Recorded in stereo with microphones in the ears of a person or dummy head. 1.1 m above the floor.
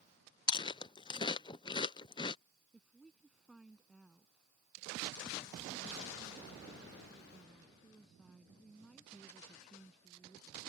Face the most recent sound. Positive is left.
turn(degrees=5)  # may be behind; listen again after turning